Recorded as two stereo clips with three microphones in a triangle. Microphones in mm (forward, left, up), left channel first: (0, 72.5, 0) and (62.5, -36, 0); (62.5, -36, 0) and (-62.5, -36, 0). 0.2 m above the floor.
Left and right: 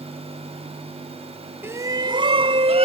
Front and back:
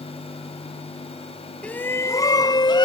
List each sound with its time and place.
1.6 s a shout: 55° right; by 2.9 s 45° right